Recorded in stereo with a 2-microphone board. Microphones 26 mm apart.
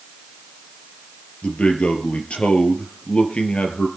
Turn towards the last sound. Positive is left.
turn(degrees=50)  # may be behind; listen again after turning